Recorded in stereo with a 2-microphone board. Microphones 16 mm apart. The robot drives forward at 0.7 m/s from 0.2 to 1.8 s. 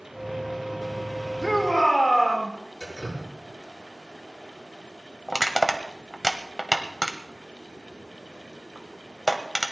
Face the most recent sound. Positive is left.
turn(degrees=0)  # may be behind; listen again after turning